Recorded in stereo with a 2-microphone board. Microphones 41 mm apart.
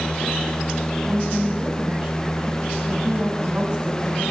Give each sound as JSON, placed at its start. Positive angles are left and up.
{"t": 1.0, "sound": "a woman speaking", "side_deg": -15, "distance_m": 4.0}